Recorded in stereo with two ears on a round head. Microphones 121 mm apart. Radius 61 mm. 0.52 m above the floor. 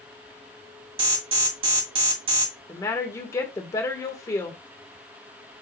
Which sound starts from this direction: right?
An alarm, at 1.0 s.